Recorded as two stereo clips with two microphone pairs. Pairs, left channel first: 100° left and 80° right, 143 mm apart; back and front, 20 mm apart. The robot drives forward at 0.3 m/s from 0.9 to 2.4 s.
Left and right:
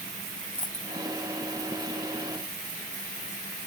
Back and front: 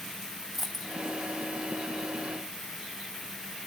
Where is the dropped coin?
80° left, 0.8 m.